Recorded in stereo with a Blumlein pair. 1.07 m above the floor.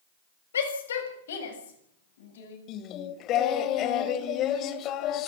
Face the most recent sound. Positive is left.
turn(degrees=35)